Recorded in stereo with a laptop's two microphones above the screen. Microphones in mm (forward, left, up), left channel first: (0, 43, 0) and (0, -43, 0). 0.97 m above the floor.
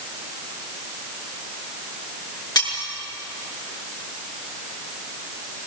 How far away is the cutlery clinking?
About 7 m.